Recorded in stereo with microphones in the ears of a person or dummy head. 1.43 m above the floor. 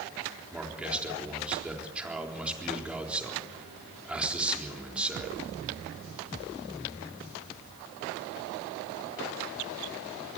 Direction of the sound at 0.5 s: 10° right (ahead or behind).